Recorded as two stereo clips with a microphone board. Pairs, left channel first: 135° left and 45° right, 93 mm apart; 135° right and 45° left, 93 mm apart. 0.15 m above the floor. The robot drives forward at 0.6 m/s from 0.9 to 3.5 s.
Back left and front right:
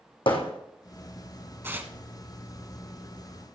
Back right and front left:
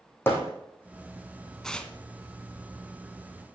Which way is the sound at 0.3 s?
160° left.